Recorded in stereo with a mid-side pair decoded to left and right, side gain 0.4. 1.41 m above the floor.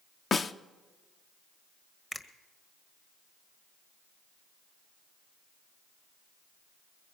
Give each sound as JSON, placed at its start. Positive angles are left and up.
{"t": 0.3, "sound": "a snare drum", "azimuth_deg": 45, "distance_m": 0.7}
{"t": 2.1, "sound": "a finger snap", "azimuth_deg": 25, "distance_m": 1.5}